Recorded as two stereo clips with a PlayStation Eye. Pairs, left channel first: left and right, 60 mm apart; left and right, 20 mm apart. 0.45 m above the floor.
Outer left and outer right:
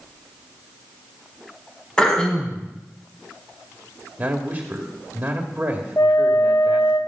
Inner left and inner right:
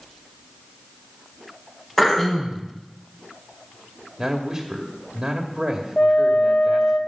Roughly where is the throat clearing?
Centre.